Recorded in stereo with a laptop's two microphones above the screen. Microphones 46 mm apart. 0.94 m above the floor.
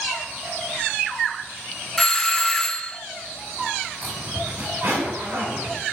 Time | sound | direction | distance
2.0 | a doorbell | 10° left (ahead or behind) | 0.7 m
4.0 | a zipper | 35° right (ahead or behind) | 8 m